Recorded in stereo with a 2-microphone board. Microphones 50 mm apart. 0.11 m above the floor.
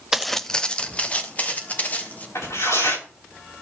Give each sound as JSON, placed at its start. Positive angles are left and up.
{"t": 0.1, "sound": "footsteps", "side_deg": -5, "distance_m": 0.5}
{"t": 2.4, "sound": "tearing paper", "side_deg": 85, "distance_m": 9.0}